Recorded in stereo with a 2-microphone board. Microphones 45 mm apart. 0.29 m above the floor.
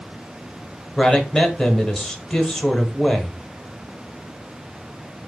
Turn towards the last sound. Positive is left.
turn(degrees=10)  # may be behind; listen again after turning